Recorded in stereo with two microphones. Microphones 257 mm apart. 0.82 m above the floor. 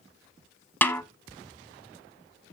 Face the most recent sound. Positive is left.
turn(degrees=5)  # may be behind; listen again after turning